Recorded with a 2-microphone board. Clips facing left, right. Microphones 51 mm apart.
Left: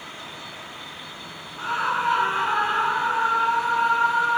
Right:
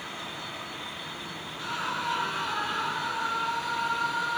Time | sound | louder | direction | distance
1.6 | a scream | left 8 dB | 35° left (ahead or behind) | ?